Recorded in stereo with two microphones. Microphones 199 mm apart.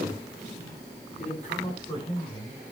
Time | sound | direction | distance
1.2 | a man speaking | 45° left (ahead or behind) | 5.5 m